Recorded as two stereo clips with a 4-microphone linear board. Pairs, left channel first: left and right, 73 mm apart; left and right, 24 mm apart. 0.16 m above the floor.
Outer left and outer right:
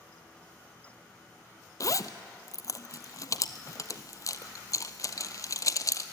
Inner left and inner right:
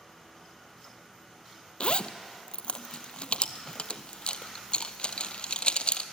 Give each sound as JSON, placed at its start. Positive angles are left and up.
{"t": 1.8, "sound": "a zipper", "side_deg": 50, "distance_m": 0.8}